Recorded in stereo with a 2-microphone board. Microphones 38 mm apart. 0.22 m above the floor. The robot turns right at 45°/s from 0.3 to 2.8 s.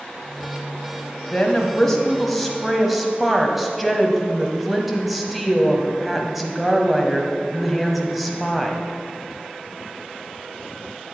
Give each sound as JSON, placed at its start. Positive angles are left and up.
{"t": 1.3, "sound": "a woman speaking", "side_deg": 15, "distance_m": 1.0}